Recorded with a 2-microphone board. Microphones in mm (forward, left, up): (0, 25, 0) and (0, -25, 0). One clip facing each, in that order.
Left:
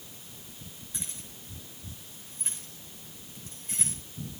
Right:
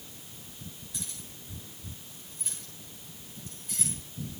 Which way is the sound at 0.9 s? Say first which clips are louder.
Left 2 dB; 30° left (ahead or behind).